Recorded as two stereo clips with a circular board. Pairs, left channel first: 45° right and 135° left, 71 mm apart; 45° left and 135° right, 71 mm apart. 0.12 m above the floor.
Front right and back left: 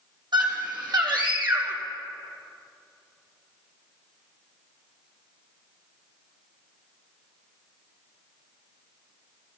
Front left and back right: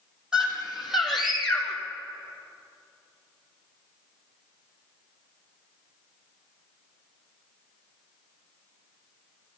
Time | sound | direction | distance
0.3 | a scream | 145° left | 4.5 m